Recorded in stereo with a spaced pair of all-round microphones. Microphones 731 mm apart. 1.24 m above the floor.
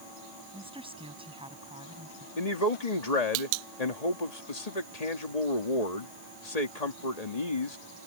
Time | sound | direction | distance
0.5 | a woman speaking | 5° right (ahead or behind) | ?
2.4 | a man speaking | 60° left (ahead or behind) | ?